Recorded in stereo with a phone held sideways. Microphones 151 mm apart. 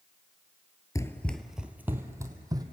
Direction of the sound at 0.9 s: 20° left (ahead or behind).